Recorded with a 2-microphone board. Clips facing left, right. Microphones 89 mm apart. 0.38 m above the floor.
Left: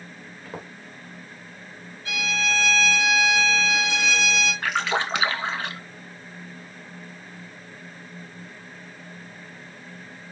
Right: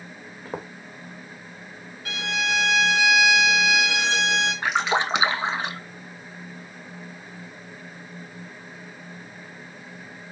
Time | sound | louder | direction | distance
0.5 | footsteps | right 4 dB | 35° right (ahead or behind) | 1.4 m
2.0 | a violin | even | 65° right (ahead or behind) | 2.5 m
4.6 | a splash | right 3 dB | 20° right (ahead or behind) | 0.6 m